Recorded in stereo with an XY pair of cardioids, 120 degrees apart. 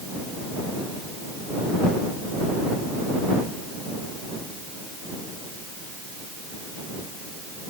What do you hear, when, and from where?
Only background noise.